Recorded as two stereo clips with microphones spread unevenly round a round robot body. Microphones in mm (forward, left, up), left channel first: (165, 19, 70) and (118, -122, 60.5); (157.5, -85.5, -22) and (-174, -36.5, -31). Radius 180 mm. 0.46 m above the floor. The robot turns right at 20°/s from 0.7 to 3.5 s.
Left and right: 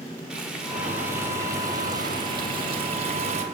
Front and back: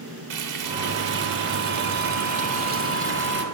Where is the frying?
170° left, 1.2 m; by 3.4 s 135° right, 1.2 m.